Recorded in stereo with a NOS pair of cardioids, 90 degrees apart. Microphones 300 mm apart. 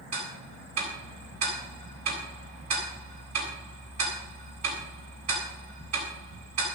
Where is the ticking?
60° right, 8.5 m.